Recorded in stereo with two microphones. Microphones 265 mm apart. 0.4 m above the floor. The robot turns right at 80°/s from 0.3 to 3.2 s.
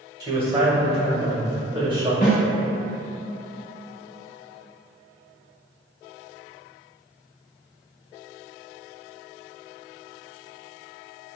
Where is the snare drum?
35° left (ahead or behind), 1.0 m; by 2.4 s 25° left (ahead or behind), 1.0 m.